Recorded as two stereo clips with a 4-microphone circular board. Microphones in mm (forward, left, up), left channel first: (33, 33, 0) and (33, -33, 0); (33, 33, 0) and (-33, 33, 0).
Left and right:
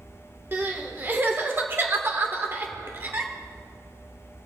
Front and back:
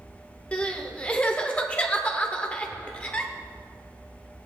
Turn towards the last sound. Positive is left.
turn(degrees=-60)